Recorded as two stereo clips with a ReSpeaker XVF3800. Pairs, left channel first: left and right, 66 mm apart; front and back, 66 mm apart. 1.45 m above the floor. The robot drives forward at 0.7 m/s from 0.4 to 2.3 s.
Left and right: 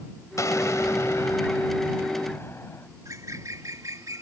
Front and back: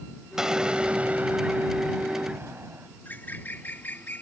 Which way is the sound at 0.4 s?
100° left.